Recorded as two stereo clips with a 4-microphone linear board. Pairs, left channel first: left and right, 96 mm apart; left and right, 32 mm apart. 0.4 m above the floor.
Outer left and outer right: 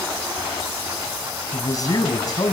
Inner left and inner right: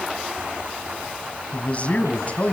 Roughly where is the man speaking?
Left.